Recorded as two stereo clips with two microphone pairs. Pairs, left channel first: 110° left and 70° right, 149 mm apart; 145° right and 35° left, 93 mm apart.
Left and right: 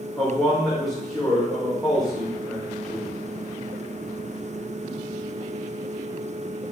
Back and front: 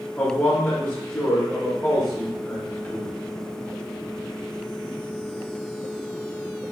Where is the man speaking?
165° right, 0.8 m.